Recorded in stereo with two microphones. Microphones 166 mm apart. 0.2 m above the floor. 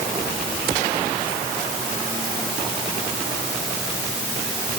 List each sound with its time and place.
Only background noise.